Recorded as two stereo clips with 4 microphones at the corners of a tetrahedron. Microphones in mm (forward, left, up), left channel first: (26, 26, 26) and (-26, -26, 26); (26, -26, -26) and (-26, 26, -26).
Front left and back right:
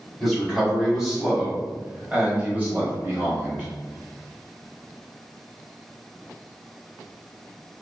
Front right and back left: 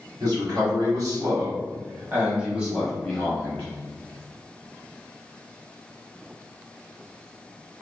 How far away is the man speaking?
About 1.8 m.